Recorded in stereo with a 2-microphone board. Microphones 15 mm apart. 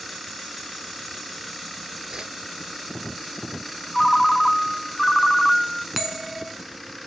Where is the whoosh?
75° right (ahead or behind), 0.6 m.